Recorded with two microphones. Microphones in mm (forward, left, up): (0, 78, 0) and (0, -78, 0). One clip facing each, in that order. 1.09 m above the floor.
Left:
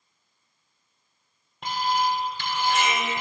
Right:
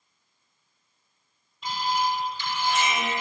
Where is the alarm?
65° left (ahead or behind), 5.5 m.